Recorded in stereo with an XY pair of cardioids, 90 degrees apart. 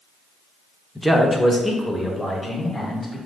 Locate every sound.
0.9 s a man speaking: straight ahead, 0.8 m; by 3.2 s 15° left, 2.5 m